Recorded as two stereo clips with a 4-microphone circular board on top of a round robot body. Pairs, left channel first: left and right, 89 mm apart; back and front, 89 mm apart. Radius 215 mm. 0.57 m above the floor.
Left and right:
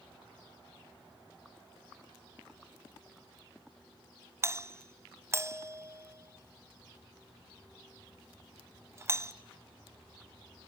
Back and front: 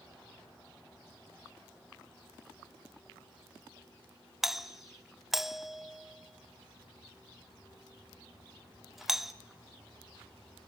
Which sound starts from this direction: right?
A doorbell, at 4.4 s.